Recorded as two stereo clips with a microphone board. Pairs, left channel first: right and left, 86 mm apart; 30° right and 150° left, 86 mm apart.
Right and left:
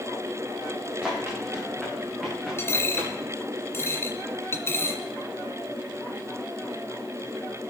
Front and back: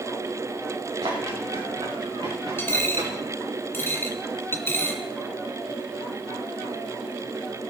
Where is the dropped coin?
70° right, 1.8 m.